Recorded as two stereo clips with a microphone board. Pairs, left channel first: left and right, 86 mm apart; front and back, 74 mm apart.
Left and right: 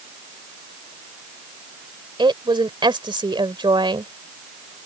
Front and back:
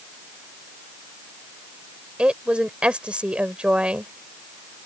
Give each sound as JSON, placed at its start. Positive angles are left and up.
{"t": 2.2, "sound": "a woman speaking", "azimuth_deg": -105}